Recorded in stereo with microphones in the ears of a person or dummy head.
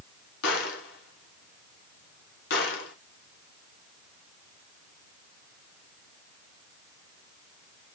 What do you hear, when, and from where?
0.4 s a gunshot: 75° left (ahead or behind), 2.5 m